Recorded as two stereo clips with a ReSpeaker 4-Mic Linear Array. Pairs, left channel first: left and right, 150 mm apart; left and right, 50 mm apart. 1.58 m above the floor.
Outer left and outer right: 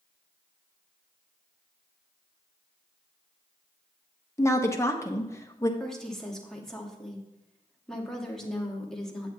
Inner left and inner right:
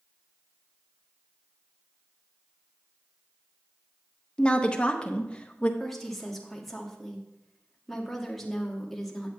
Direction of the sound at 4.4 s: 20° left (ahead or behind).